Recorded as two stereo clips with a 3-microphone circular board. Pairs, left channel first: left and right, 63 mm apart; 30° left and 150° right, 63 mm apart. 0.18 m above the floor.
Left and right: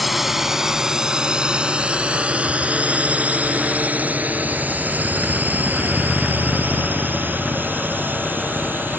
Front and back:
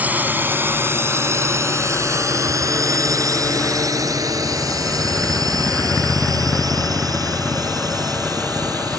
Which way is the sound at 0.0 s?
175° right.